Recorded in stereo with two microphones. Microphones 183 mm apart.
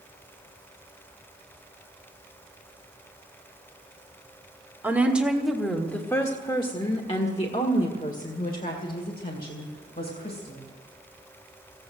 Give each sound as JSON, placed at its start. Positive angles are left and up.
{"t": 4.8, "sound": "a woman speaking", "side_deg": -10, "distance_m": 1.6}